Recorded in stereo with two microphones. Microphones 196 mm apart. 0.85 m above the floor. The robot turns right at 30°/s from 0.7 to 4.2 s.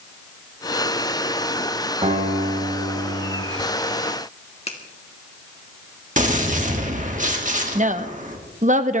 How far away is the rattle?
No rattle in this recording.